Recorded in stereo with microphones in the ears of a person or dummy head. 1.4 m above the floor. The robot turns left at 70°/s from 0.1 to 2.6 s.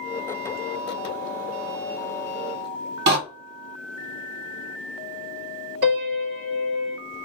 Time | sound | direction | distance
3.1 | a door slam | 65° right (ahead or behind) | 1.7 m
5.8 | a piano | 55° right (ahead or behind) | 1.4 m